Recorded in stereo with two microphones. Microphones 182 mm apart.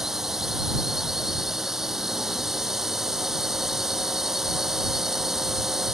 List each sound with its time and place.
0.0 s a drone: centre (ahead or behind)